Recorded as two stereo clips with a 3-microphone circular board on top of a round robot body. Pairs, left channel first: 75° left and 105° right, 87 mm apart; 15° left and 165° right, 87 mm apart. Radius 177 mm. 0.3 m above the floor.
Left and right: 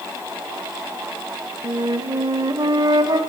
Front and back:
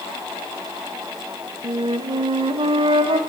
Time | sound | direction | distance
1.6 | a flute | 150° right | 1.2 m